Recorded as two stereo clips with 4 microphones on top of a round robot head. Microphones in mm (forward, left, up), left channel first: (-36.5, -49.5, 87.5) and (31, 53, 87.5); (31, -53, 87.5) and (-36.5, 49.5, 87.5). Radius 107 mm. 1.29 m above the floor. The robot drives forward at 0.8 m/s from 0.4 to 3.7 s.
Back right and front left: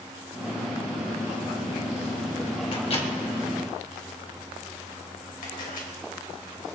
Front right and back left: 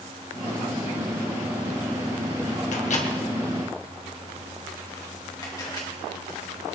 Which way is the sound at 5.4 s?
115° right.